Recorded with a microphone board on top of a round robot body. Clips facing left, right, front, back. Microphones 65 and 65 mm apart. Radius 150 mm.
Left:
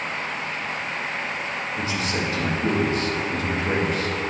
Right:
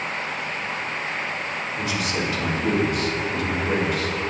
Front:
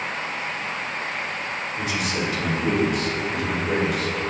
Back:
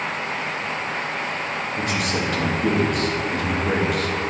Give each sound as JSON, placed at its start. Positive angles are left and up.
{"t": 1.8, "sound": "a man speaking", "azimuth_deg": 145, "distance_m": 1.6}